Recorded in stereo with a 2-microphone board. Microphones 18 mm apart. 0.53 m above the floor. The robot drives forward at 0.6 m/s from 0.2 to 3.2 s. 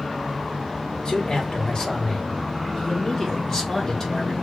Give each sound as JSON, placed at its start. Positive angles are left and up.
{"t": 1.1, "sound": "a man speaking", "side_deg": 50, "distance_m": 1.5}